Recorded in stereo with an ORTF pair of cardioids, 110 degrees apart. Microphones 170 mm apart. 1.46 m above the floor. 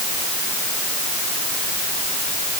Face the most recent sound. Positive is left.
No sound to turn to.